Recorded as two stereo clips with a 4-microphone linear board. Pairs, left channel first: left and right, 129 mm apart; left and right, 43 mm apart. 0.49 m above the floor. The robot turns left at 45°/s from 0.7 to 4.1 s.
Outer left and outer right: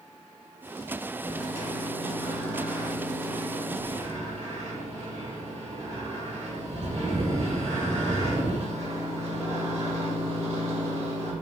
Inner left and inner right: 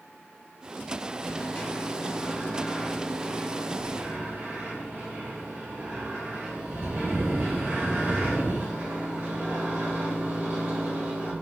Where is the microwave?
70° left, 1.6 m; by 11.3 s 60° right, 1.6 m.